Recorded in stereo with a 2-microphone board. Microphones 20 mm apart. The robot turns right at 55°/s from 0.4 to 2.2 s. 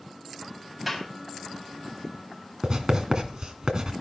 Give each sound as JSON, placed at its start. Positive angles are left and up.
{"t": 0.9, "sound": "a clap", "side_deg": -10, "distance_m": 4.0}
{"t": 2.6, "sound": "writing", "side_deg": -40, "distance_m": 2.0}